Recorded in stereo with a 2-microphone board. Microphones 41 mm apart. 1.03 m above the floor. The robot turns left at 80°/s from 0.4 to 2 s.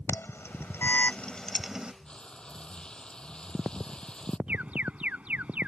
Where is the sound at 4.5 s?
35° right (ahead or behind).